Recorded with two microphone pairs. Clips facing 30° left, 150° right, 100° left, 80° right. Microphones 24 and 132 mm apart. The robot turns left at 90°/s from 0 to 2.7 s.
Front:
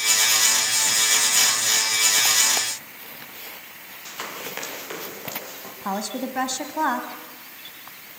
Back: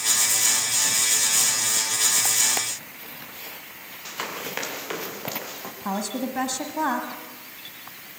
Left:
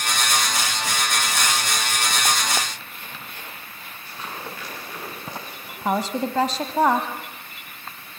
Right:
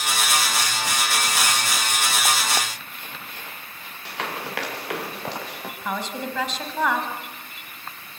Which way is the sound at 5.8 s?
105° left.